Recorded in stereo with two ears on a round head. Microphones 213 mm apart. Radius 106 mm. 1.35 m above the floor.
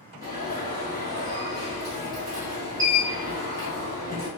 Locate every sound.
0.2 s an alarm: 15° right (ahead or behind), 1.8 m